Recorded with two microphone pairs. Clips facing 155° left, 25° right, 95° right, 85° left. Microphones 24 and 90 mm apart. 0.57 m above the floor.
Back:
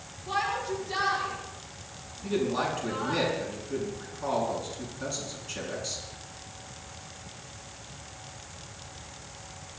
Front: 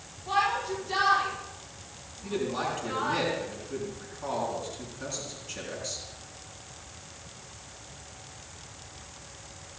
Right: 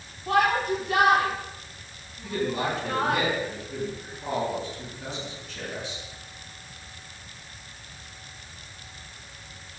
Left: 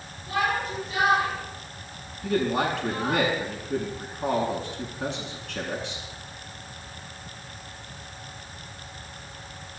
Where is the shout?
95° right, 6 m; by 3.2 s 85° right, 7 m.